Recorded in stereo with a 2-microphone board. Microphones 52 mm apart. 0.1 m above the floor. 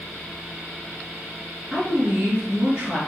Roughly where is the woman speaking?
Right.